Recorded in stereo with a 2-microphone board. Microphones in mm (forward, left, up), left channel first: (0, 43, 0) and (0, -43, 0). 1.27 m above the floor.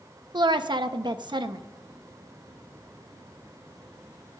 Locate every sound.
0.3 s a woman speaking: 60° right (ahead or behind), 1.0 m